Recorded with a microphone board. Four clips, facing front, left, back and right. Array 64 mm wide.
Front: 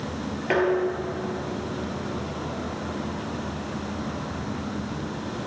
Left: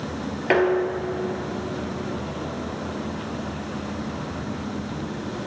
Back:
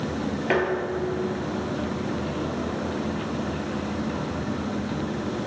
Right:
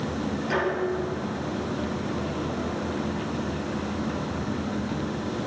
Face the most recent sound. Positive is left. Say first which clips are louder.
# left 7 dB, front 3 dB
turn(degrees=95)